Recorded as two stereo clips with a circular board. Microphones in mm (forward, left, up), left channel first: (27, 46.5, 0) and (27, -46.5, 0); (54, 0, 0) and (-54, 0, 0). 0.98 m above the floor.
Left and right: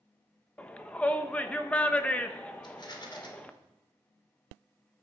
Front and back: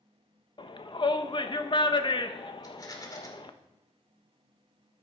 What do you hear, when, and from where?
0.6 s a shout: 20° left, 1.2 m
2.6 s a rattle: 55° left, 2 m